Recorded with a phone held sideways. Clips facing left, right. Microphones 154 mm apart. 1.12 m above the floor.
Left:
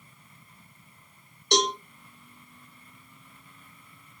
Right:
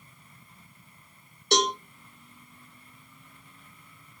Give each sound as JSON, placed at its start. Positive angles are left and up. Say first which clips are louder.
{"t": 1.5, "sound": "a cowbell", "louder": "even", "side_deg": -5, "distance_m": 1.2}